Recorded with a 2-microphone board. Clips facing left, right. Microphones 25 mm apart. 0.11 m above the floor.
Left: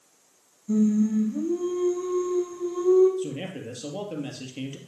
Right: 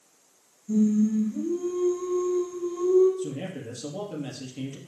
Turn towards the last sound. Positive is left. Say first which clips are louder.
# left 1 dB
turn(degrees=30)  # may be behind; listen again after turning